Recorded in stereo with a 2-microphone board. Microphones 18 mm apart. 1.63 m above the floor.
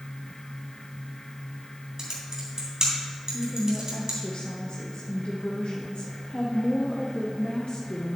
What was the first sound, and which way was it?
Typing on a keyboard, 40° right (ahead or behind).